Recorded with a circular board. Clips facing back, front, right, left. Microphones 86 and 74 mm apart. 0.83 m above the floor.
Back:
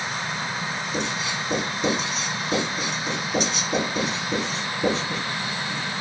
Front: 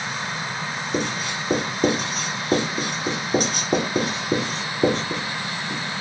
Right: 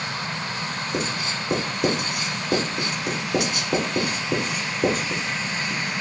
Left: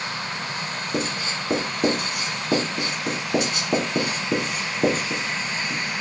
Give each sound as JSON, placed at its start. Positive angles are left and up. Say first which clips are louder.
{"t": 0.9, "sound": "writing", "louder": "front 4 dB, left 2 dB", "azimuth_deg": 40, "distance_m": 1.3}